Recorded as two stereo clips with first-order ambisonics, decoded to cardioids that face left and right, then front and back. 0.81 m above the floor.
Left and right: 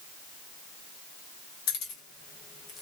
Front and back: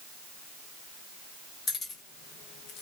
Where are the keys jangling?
65° left, 1.1 m; by 2.8 s 20° left, 0.6 m.